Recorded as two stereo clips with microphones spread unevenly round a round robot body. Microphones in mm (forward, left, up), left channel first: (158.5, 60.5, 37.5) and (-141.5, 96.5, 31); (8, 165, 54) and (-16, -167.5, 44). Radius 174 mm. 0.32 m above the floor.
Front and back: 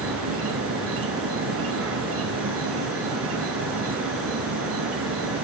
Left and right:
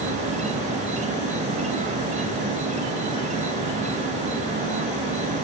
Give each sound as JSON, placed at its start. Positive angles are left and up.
{"t": 0.0, "sound": "an insect", "azimuth_deg": -155, "distance_m": 2.5}